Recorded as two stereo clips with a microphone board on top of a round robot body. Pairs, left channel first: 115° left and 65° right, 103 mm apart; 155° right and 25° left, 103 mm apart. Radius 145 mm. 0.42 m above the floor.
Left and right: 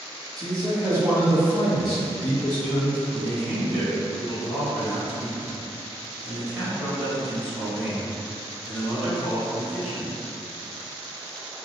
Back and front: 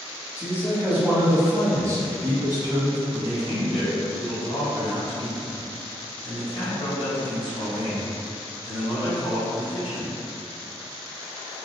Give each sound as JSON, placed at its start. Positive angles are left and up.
{"t": 0.4, "sound": "a man speaking", "azimuth_deg": -50, "distance_m": 1.4}
{"t": 3.1, "sound": "a man speaking", "azimuth_deg": -160, "distance_m": 1.8}